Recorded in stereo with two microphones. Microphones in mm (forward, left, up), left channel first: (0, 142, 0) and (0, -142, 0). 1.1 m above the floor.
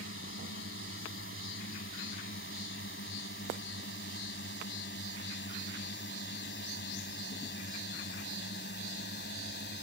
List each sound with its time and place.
0.0 s a drone: 45° left (ahead or behind); by 9.8 s 35° left (ahead or behind)